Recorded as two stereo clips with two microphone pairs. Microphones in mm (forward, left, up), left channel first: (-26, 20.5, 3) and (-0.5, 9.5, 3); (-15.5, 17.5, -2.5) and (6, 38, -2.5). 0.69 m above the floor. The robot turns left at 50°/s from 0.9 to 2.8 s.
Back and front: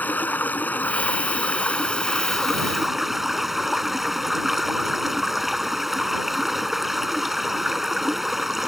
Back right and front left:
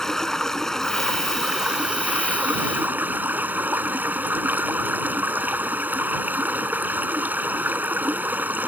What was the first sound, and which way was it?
Running water, 150° left.